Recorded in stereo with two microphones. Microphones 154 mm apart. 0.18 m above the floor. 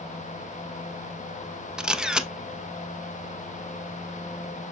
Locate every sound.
1.8 s a camera shutter: 5° right (ahead or behind), 0.6 m